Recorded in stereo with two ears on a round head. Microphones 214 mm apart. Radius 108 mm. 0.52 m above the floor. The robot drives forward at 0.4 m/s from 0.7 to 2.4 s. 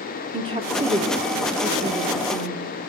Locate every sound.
0.3 s a woman speaking: 25° right (ahead or behind), 1.1 m; by 2.7 s 15° right (ahead or behind), 1.6 m